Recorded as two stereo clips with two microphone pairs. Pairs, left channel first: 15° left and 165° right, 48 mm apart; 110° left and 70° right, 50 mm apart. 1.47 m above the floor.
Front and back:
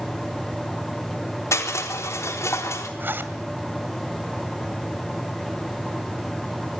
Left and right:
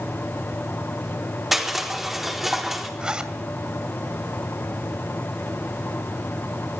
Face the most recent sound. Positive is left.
turn(degrees=-135)